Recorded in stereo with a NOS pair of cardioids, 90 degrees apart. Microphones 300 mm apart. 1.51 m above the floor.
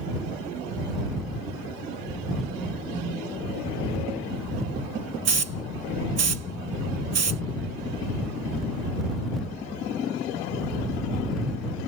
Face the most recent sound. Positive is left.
turn(degrees=-50)